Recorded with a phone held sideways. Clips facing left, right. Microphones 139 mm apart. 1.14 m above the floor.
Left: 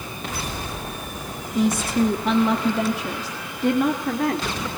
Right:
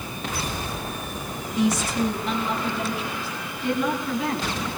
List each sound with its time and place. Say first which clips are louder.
1.6 s a woman speaking: left 2 dB; 50° left (ahead or behind), 2.5 m; by 4.7 s 55° left (ahead or behind), 3.5 m